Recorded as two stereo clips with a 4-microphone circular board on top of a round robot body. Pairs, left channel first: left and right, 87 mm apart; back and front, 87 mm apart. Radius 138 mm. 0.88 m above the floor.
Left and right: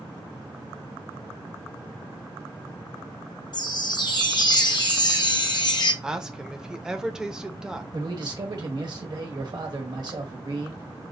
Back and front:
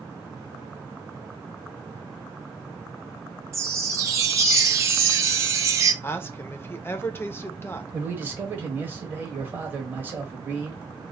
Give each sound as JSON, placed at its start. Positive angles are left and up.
{"t": 3.5, "sound": "a chime", "azimuth_deg": 55, "distance_m": 0.7}
{"t": 6.0, "sound": "a woman speaking", "azimuth_deg": -165, "distance_m": 0.7}
{"t": 7.9, "sound": "a man speaking", "azimuth_deg": -65, "distance_m": 1.1}